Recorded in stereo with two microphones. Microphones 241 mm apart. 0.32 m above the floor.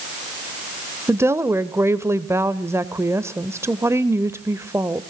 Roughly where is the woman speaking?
Centre.